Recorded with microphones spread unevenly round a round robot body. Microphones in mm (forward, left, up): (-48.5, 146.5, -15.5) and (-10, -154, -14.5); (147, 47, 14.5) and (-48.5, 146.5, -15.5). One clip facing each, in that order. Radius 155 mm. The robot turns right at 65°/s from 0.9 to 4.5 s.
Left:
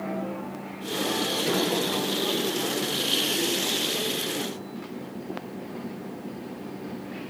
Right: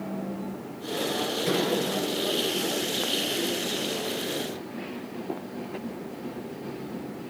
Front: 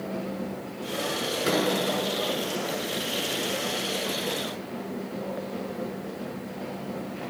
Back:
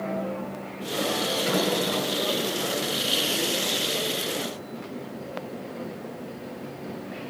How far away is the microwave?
About 7 m.